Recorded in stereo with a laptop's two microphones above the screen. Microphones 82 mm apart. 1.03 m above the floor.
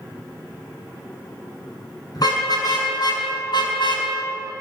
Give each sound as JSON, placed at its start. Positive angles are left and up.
{"t": 2.1, "sound": "a car horn", "side_deg": 55, "distance_m": 6.0}